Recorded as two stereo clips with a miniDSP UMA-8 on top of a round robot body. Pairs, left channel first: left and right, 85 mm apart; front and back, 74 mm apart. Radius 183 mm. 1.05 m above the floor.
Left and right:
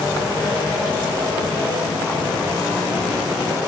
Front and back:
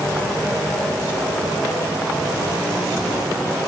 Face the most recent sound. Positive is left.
No sound to turn to.